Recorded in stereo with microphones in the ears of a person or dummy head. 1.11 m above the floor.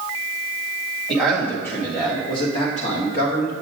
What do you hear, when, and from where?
1.1 s a man speaking: 5° left (ahead or behind), 1.6 m; by 3.5 s 55° left (ahead or behind), 1.4 m